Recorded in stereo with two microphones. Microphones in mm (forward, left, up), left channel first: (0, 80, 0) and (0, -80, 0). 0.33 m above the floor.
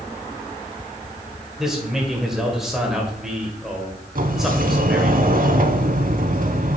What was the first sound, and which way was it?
A man speaking, centre (ahead or behind).